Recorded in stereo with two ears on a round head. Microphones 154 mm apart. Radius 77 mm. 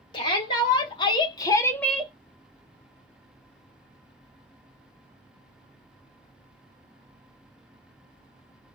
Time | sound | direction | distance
0.1 | a shout | 25° left (ahead or behind) | 1.4 m